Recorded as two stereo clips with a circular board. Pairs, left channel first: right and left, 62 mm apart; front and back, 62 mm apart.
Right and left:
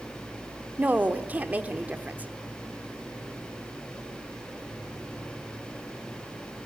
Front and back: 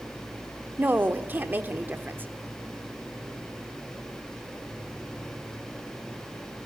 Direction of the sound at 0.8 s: 140° left.